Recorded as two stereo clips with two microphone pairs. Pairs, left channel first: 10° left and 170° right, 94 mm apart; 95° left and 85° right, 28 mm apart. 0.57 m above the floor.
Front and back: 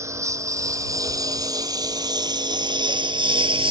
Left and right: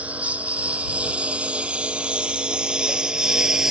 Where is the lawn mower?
115° right; by 3.7 s 155° right.